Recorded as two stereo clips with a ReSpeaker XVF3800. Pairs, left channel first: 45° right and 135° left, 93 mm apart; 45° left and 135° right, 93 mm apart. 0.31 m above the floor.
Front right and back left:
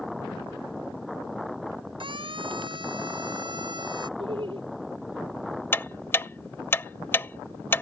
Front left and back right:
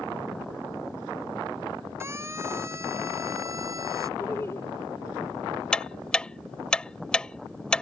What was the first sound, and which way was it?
A siren, 165° left.